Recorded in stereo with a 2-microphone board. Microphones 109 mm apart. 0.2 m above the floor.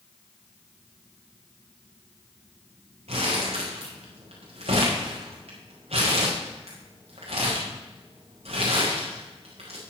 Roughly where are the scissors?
No scissors in this recording.